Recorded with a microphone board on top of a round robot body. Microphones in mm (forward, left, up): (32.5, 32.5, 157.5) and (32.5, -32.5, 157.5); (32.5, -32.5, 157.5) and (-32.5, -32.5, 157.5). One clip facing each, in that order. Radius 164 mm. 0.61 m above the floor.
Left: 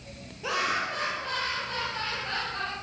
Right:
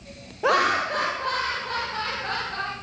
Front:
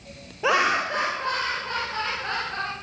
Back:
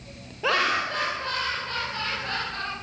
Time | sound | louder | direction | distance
0.4 | laughter | right 8 dB, front 3 dB | 75° right | 0.9 m